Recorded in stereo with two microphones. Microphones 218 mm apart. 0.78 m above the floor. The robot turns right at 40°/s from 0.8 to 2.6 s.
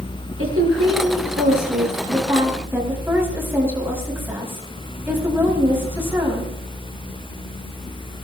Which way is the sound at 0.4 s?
80° right.